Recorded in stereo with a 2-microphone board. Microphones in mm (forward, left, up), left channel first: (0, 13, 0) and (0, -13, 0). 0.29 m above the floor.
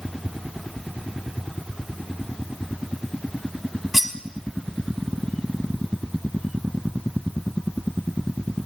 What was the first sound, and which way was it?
Cutlery clinking, 10° right (ahead or behind).